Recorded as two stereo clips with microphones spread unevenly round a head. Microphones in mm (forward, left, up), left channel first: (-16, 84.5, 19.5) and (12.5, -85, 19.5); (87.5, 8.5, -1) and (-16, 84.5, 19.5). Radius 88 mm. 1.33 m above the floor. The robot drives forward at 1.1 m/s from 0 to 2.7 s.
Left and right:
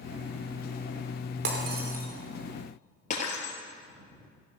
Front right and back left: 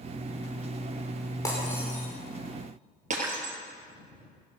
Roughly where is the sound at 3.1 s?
Behind left.